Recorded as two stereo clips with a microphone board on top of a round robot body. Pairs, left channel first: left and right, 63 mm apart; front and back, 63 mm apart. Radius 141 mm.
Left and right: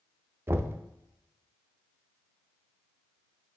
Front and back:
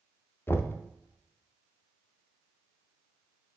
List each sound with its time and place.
0.5 s knocking: 45° right, 0.7 m